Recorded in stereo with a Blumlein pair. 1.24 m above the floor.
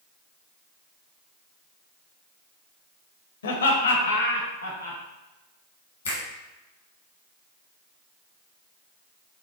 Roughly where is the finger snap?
Left.